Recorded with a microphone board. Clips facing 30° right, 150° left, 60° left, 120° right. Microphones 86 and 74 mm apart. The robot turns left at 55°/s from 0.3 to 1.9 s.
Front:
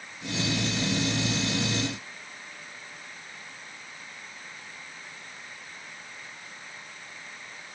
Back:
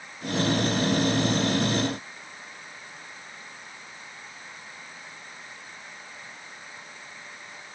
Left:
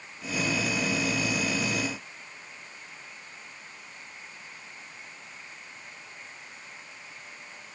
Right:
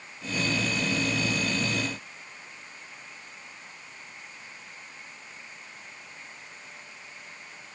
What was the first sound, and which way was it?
Only background noise.